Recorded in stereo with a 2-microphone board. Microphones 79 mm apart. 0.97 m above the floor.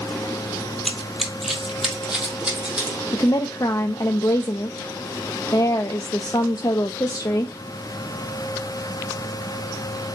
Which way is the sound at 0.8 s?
5° left (ahead or behind).